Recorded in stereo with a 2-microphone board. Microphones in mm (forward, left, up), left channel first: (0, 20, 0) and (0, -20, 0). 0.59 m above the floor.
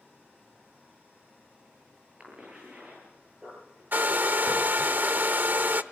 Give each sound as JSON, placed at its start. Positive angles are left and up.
{"t": 2.2, "sound": "a cough", "side_deg": -30, "distance_m": 10.0}
{"t": 3.9, "sound": "a hair dryer", "side_deg": -50, "distance_m": 0.7}